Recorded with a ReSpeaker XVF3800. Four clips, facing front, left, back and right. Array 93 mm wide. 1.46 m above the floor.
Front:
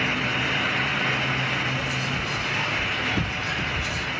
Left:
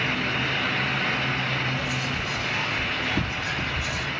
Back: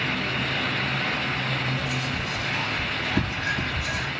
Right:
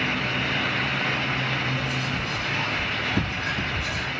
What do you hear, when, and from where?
1.8 s whispering: 140° right, 1.9 m